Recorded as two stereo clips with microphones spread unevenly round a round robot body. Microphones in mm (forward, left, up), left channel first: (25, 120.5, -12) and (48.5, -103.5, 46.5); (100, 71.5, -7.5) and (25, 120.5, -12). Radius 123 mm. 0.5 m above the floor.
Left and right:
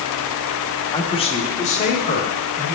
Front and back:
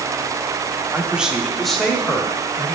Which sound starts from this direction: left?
A man speaking, at 0.9 s.